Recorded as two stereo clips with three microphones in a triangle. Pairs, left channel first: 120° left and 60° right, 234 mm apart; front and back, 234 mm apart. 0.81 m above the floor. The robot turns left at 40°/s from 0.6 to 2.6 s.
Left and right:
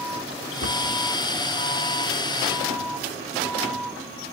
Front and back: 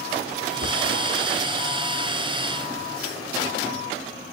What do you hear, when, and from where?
0.6 s a cupboard door: 135° left, 1.4 m; by 1.0 s 120° left, 1.4 m